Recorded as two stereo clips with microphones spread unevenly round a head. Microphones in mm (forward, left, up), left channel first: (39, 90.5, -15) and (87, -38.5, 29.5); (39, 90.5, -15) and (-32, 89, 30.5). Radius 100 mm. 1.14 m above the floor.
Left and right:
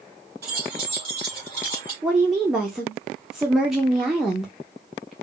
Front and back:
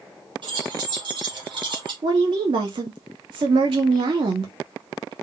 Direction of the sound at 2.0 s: 155° right.